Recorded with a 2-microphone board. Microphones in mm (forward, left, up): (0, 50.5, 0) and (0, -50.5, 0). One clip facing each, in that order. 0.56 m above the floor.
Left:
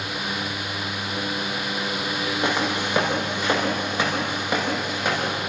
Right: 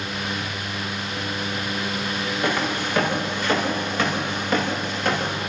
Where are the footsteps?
20° left (ahead or behind), 8 m; by 5.3 s 10° left (ahead or behind), 8.5 m.